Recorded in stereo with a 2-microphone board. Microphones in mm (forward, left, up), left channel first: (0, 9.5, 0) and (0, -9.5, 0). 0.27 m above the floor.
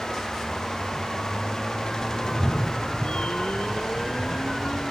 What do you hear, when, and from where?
2.2 s a cat meowing: 20° left (ahead or behind), 0.5 m; by 4.8 s 85° left, 2.5 m